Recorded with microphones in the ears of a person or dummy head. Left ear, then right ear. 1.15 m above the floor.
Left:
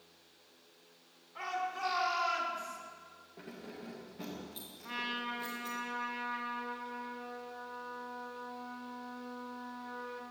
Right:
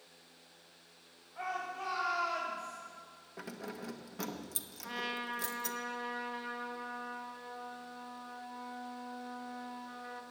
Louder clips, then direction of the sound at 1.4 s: Left 2 dB; 35° left (ahead or behind).